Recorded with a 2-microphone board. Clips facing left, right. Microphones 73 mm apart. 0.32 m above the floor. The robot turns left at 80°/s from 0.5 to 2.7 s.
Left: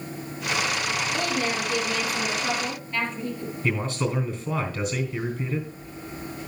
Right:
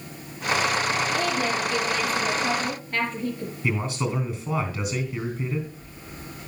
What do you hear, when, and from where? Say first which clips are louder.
1.1 s a woman speaking: right 2 dB; 75° left, 4.5 m; by 3.5 s 50° right, 4.5 m
3.6 s a man speaking: even; 15° right (ahead or behind), 3 m